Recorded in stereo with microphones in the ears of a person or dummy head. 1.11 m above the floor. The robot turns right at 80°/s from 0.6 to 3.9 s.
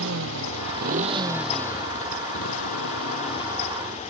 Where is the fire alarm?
I don't hear a fire alarm.